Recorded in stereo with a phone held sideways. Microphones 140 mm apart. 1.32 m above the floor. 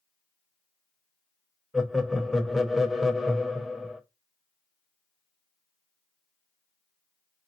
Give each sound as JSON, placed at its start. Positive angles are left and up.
{"t": 1.7, "sound": "laughter", "side_deg": 0, "distance_m": 0.9}